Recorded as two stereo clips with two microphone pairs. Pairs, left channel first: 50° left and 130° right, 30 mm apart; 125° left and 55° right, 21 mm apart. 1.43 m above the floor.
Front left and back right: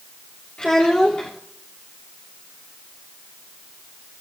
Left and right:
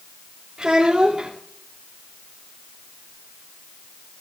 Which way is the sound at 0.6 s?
5° right.